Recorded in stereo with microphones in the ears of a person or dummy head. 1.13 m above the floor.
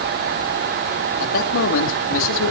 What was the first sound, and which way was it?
A man speaking, 80° left.